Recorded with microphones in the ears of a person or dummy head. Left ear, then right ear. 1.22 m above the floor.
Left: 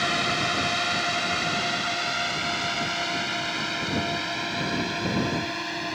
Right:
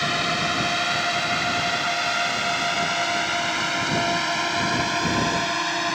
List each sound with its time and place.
0.0 s a drone: 5° right (ahead or behind); by 6.0 s 40° right (ahead or behind)